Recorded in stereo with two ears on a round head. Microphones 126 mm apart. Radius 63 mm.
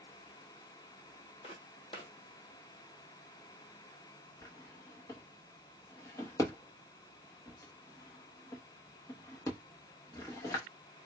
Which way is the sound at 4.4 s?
25° left (ahead or behind).